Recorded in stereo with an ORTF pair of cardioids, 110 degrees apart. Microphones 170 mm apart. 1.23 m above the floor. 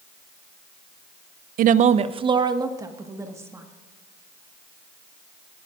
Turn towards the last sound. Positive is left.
turn(degrees=-15)